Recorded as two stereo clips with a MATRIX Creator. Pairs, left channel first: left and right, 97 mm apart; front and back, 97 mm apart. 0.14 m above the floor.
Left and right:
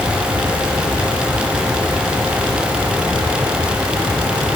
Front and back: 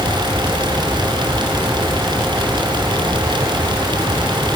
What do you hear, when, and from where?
Only background noise.